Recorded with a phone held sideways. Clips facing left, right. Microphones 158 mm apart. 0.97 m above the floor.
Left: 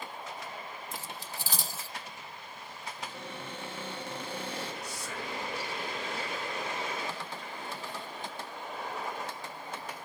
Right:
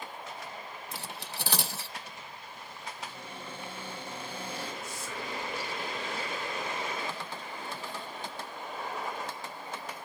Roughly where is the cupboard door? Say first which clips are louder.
Left 2 dB; left.